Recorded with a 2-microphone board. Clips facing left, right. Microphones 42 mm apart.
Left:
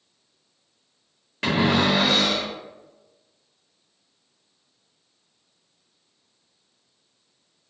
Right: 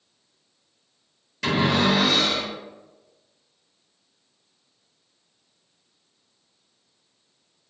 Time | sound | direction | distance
1.4 | a cupboard door | 40° left (ahead or behind) | 1.0 m